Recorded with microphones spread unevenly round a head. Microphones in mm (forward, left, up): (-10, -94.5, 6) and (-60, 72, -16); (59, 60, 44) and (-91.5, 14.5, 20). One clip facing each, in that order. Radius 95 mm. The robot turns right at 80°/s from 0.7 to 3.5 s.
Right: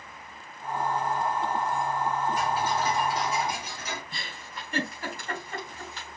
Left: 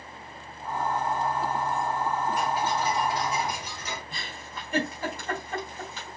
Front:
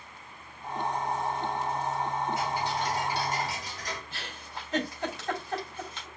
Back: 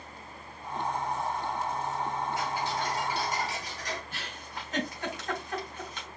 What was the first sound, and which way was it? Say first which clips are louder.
Ticking: even, front 1 dB; 20° right.